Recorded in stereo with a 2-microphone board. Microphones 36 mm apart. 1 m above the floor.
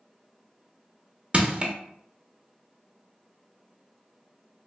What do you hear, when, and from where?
1.3 s crushing: 30° right (ahead or behind), 0.7 m